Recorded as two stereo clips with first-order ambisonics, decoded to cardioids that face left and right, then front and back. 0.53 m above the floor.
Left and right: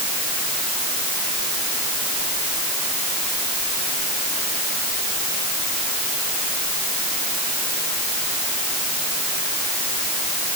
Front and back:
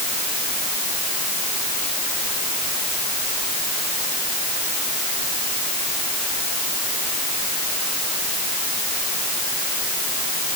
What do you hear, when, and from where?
Only background noise.